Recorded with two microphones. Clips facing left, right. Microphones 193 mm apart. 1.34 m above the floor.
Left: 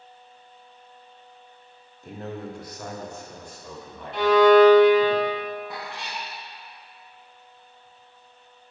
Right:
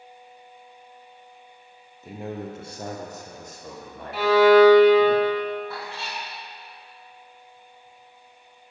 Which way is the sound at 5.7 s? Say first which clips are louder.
Right 1 dB; 15° left (ahead or behind).